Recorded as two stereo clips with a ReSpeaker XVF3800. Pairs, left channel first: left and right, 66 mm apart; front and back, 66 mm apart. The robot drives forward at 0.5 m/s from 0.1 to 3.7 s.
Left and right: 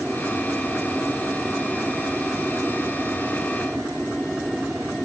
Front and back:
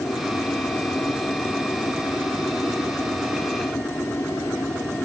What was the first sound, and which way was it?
An aircraft, 5° right.